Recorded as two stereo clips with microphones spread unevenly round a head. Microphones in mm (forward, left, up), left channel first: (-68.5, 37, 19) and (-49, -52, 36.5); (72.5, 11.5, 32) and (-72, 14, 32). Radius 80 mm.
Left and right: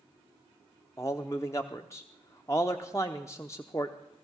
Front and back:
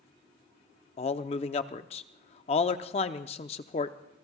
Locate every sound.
1.0 s a man speaking: 25° left, 0.6 m